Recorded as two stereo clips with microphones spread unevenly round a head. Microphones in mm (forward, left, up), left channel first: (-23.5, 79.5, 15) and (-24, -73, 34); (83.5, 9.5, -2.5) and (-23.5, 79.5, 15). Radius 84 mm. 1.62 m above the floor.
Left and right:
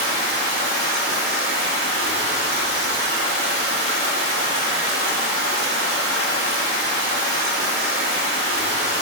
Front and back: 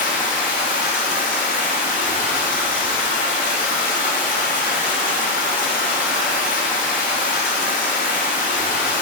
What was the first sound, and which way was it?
Running water, 60° right.